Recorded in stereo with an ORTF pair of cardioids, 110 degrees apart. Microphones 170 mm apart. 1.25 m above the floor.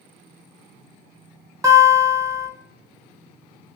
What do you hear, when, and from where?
1.6 s a guitar: 20° right, 1.1 m